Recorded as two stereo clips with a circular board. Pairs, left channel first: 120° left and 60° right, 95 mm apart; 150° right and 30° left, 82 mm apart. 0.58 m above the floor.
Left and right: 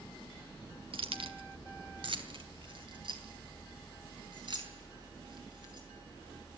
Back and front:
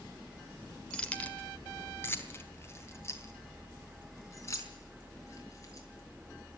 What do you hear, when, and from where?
0.9 s keys jangling: 70° right, 1.5 m; by 5.9 s 95° right, 6 m